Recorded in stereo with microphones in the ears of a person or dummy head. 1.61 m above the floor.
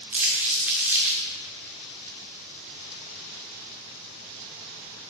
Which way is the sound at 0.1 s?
5° right (ahead or behind).